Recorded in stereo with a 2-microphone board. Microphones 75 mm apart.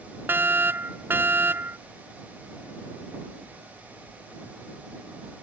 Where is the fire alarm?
25° right (ahead or behind).